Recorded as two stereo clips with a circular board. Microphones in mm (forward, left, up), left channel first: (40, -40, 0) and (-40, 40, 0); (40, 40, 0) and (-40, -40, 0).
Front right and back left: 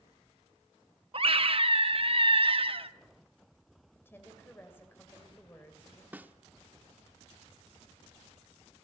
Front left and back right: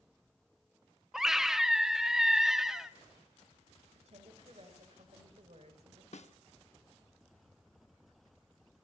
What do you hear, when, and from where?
1.1 s a scream: 140° left, 0.9 m
4.0 s a woman speaking: 115° right, 2.5 m
6.1 s a snare drum: 60° left, 0.7 m